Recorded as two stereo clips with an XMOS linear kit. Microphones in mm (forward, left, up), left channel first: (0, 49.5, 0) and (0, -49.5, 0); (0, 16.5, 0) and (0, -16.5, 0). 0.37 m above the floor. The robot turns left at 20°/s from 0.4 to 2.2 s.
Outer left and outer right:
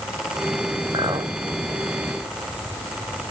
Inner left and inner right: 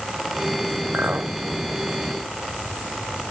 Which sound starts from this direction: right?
A clink, at 0.9 s.